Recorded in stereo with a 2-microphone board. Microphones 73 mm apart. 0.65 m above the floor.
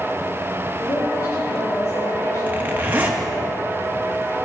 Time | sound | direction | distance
0.8 | a woman speaking | 70° left (ahead or behind) | 1.9 m
2.5 | a zipper | 25° right (ahead or behind) | 1.2 m